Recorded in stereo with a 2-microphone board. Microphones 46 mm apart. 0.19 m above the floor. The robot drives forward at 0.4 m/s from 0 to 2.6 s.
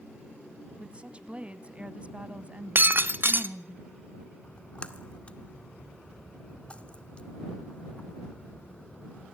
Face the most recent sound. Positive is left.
turn(degrees=25)  # may be behind; listen again after turning